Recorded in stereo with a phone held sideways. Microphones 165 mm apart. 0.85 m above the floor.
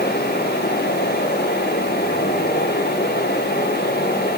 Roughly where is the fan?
Left.